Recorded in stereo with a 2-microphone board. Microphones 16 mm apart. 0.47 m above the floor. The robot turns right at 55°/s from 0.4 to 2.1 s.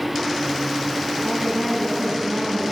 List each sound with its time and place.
1.2 s a woman speaking: 145° left, 3.5 m; by 2.6 s 165° right, 3.5 m